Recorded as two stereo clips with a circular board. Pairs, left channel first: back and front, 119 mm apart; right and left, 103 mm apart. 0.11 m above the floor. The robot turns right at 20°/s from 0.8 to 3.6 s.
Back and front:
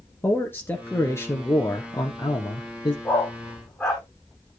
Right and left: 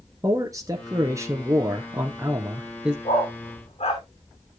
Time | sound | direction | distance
0.2 | a man speaking | 120° left | 1.3 m
3.0 | a dog barking | 105° right | 3 m